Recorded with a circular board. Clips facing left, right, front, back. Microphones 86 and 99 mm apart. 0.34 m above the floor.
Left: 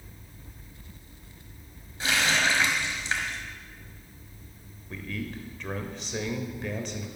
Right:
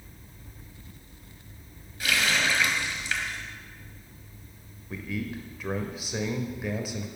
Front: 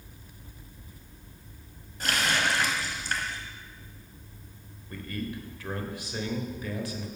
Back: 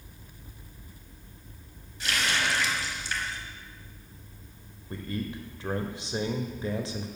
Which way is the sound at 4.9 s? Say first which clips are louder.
Right 2 dB, back 1 dB; 165° right.